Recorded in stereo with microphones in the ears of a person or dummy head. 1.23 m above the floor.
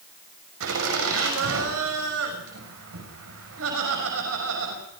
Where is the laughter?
70° right (ahead or behind), 6.5 m.